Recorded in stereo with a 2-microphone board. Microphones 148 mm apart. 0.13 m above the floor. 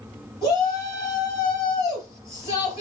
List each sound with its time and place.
0.4 s a shout: 25° right (ahead or behind), 2.5 m